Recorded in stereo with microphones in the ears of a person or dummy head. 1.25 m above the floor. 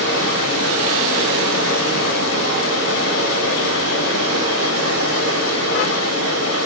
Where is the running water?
65° left (ahead or behind), 1.2 m.